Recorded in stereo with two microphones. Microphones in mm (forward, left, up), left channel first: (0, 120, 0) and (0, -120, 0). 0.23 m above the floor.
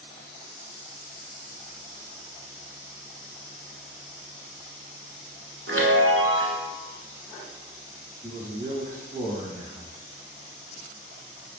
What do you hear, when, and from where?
5.7 s a chime: 70° right (ahead or behind), 1.0 m
8.2 s a man speaking: 5° left (ahead or behind), 1.8 m